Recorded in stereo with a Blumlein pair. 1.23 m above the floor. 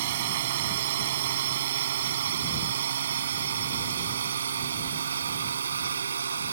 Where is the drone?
55° right; by 6.5 s 70° right.